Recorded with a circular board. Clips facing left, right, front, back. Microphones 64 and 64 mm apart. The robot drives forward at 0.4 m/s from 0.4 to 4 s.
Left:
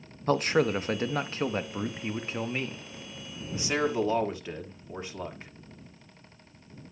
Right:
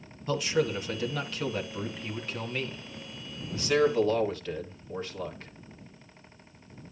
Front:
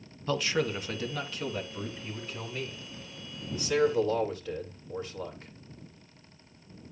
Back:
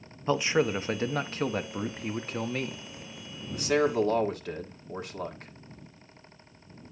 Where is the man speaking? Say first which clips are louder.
Left 3 dB, back 4 dB; 115° left, 0.8 m; by 5.5 s 160° left, 1.9 m.